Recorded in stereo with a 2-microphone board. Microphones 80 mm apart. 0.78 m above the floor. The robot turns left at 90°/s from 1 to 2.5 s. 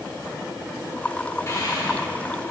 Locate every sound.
1.5 s breathing: 35° left (ahead or behind), 1.3 m; by 2.5 s 45° left (ahead or behind), 1.3 m